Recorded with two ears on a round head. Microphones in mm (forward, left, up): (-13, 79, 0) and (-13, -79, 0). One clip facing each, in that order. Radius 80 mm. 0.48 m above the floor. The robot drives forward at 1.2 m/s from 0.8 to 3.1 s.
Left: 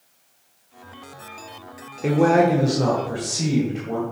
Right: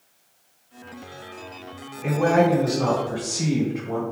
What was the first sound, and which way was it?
A man speaking, 50° left (ahead or behind).